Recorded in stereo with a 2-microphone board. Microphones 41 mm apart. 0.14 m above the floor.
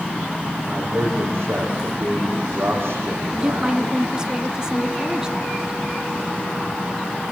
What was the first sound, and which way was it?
A man speaking, 70° right (ahead or behind).